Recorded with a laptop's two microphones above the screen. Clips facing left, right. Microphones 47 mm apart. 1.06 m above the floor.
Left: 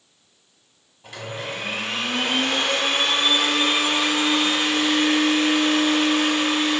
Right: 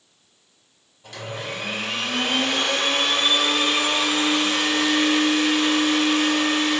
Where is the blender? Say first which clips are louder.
Even; 15° left (ahead or behind), 1.6 m.